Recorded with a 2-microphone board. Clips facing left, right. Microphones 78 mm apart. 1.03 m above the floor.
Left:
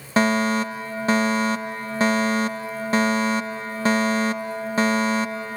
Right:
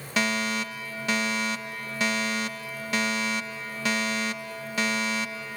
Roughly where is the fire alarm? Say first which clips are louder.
Left 8 dB; left.